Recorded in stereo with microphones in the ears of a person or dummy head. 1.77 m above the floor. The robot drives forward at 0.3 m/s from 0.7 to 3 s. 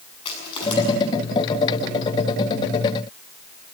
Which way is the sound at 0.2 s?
30° left (ahead or behind).